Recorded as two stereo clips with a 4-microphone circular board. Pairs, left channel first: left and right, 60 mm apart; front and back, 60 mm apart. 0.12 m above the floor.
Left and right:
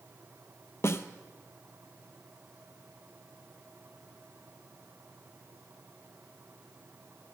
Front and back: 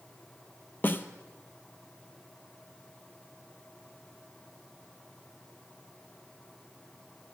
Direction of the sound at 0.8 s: 50° left.